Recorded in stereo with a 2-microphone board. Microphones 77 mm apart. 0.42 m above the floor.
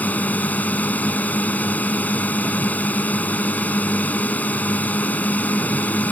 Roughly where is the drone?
Centre.